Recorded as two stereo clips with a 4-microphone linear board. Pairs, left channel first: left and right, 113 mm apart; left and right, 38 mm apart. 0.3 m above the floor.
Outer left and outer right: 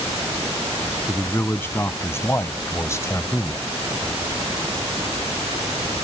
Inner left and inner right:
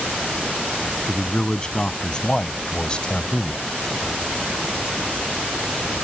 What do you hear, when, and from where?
1.1 s a man speaking: 20° left (ahead or behind)